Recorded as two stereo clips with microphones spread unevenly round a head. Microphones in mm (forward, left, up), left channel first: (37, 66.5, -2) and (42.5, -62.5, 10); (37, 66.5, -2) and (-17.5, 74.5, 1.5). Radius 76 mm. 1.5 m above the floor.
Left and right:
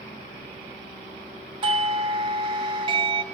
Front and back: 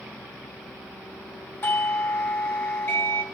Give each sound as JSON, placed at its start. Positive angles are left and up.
{"t": 1.6, "sound": "a doorbell", "azimuth_deg": -50, "distance_m": 0.7}